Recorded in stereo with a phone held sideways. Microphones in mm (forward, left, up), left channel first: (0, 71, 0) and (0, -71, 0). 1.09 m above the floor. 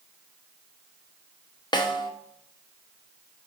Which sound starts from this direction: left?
A snare drum, at 1.7 s.